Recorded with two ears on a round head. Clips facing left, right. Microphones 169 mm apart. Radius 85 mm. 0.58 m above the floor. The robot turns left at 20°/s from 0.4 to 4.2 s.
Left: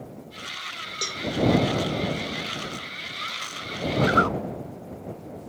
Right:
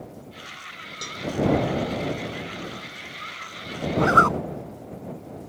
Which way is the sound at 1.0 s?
35° left (ahead or behind).